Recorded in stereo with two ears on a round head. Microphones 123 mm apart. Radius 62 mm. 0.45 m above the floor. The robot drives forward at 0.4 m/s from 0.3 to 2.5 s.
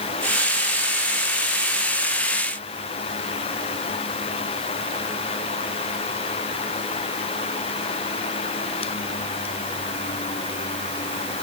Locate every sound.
Only background noise.